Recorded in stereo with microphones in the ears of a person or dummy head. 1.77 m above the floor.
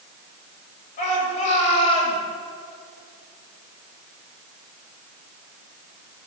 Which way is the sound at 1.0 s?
40° left (ahead or behind).